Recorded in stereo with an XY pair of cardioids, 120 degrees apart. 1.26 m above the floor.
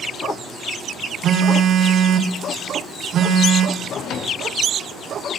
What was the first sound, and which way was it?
A phone buzzing, 55° right.